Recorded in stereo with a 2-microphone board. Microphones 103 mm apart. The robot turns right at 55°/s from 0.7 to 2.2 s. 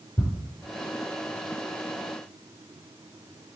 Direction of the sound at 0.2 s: 30° left (ahead or behind).